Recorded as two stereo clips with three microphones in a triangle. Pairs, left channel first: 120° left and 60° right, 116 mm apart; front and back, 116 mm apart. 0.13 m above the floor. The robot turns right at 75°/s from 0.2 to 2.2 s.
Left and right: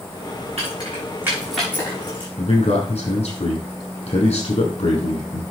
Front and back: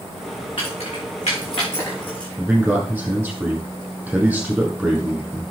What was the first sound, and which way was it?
Keys jangling, 45° right.